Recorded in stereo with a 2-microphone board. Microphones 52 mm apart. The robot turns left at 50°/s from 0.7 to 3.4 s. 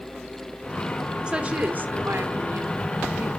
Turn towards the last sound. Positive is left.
turn(degrees=-130)